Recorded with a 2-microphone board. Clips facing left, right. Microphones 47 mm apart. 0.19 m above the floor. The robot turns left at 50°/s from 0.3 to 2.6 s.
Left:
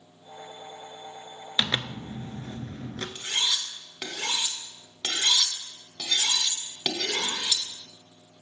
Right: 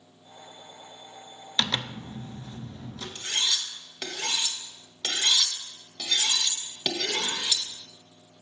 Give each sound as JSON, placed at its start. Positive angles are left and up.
{"t": 1.6, "sound": "a zipper", "azimuth_deg": 165, "distance_m": 0.5}
{"t": 3.1, "sound": "cutlery clinking", "side_deg": 15, "distance_m": 1.0}